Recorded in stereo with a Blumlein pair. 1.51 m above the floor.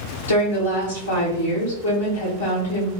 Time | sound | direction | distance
0.3 | a woman speaking | 65° left | 1.0 m